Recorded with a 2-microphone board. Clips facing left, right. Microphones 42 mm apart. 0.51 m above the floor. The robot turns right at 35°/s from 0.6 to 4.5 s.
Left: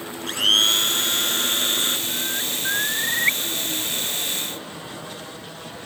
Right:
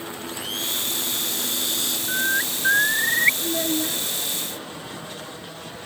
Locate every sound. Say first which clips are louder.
0.3 s a blender: left 13 dB; 90° left; by 2.0 s 135° left
2.1 s a bird: right 4 dB; 50° right; by 3.3 s 10° right
3.4 s a child speaking: right 3 dB; 85° right; by 4.0 s 65° right (ahead or behind)